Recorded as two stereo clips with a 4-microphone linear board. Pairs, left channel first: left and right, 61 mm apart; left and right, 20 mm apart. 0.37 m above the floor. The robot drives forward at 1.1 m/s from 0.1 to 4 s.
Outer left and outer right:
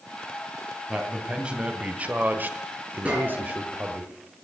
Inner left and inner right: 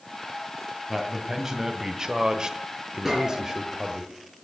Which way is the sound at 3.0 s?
20° right (ahead or behind).